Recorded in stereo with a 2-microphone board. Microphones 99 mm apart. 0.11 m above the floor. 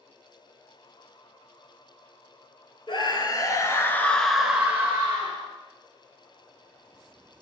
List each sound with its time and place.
2.9 s a scream: 55° left (ahead or behind), 1.9 m; by 5.5 s 45° right (ahead or behind), 1.7 m